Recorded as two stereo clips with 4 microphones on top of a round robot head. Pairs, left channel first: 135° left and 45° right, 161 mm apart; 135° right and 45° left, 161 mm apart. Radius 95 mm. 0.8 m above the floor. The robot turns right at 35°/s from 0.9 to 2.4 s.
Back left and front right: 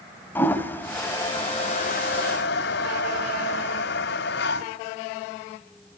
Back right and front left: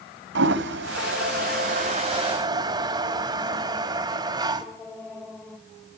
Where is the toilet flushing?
55° left, 1.6 m; by 4.7 s 110° left, 1.6 m.